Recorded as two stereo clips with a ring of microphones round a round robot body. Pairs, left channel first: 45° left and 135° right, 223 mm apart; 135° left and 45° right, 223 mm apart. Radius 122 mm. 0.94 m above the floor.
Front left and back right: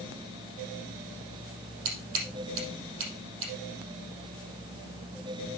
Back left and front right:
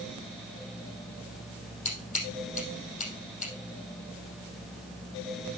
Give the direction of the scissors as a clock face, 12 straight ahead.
6 o'clock.